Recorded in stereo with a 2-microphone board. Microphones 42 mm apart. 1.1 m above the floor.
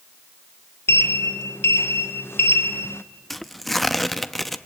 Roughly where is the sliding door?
Left.